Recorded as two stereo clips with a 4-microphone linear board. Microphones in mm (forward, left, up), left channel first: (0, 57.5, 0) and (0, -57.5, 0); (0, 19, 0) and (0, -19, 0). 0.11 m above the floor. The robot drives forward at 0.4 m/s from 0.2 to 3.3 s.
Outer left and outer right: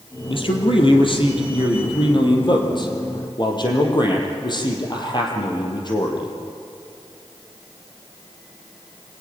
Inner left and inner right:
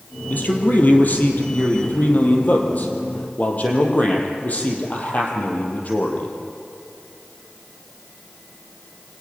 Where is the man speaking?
50° left (ahead or behind), 4 m; by 6.4 s 40° left (ahead or behind), 4.5 m.